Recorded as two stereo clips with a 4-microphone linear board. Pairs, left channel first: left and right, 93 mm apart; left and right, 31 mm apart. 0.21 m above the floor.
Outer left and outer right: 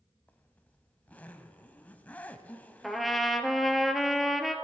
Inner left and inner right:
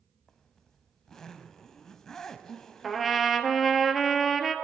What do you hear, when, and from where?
0.3 s a zipper: 15° left (ahead or behind), 0.6 m
2.8 s a trumpet: centre (ahead or behind), 0.6 m